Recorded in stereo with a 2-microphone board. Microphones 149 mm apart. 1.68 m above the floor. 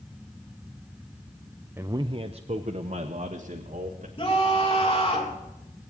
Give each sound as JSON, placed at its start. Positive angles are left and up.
{"t": 1.8, "sound": "a man speaking", "side_deg": -15, "distance_m": 0.5}
{"t": 4.2, "sound": "a scream", "side_deg": 40, "distance_m": 3.0}